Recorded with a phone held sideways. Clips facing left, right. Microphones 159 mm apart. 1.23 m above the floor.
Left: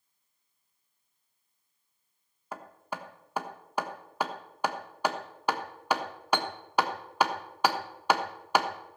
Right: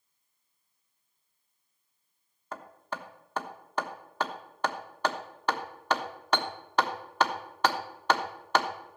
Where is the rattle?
I don't hear a rattle.